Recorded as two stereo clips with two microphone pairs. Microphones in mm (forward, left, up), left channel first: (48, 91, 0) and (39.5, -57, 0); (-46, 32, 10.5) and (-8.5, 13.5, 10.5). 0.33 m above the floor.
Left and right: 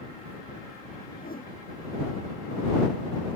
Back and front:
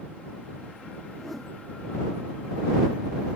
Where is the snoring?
I don't hear snoring.